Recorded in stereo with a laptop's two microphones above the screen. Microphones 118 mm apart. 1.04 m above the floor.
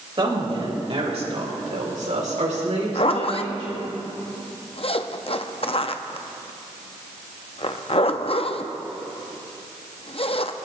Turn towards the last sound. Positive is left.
turn(degrees=55)  # may be behind; listen again after turning